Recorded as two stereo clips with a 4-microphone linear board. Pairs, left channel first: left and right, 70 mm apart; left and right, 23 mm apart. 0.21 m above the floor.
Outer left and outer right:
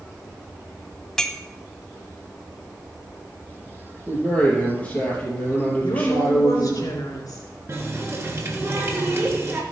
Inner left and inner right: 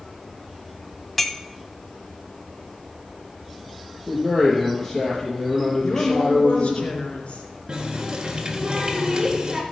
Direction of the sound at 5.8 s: 55° left (ahead or behind).